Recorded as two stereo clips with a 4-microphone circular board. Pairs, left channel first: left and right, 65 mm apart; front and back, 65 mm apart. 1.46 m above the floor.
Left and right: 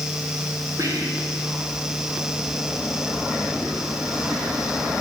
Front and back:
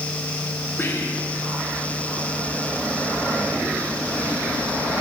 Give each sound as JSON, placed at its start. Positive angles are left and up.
{"t": 0.8, "sound": "whispering", "azimuth_deg": -55, "distance_m": 1.4}